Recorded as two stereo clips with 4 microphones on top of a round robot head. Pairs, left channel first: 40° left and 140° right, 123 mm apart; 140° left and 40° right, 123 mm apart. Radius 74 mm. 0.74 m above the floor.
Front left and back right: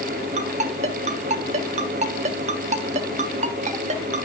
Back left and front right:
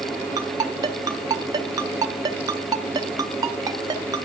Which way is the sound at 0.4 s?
105° right.